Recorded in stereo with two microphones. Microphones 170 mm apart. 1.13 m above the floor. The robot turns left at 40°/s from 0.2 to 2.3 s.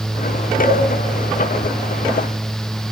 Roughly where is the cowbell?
Left.